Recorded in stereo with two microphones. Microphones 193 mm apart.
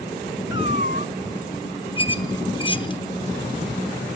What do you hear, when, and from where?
0.5 s a cat meowing: 75° left (ahead or behind), 1.2 m
2.0 s a squeak: 25° left (ahead or behind), 0.9 m